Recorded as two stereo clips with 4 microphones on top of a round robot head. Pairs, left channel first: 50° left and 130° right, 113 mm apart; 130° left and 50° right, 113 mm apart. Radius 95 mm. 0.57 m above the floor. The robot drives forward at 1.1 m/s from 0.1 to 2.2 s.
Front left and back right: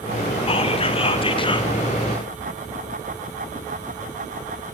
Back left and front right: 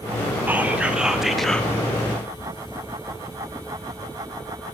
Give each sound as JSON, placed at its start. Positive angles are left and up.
{"t": 0.5, "sound": "whispering", "azimuth_deg": 20, "distance_m": 2.5}